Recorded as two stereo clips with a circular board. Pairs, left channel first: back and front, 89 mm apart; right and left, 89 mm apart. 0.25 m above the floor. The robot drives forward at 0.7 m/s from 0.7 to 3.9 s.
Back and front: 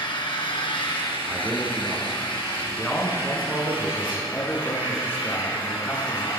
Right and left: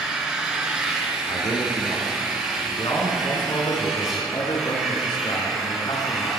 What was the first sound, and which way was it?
An engine running, 170° left.